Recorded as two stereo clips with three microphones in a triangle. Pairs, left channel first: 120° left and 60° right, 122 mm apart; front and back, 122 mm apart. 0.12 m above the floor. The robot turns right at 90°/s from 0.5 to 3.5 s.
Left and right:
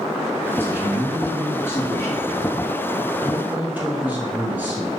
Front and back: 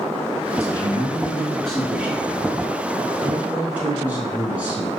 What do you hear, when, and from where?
0.5 s a man speaking: 25° right, 1.4 m; by 4.9 s 115° right, 1.4 m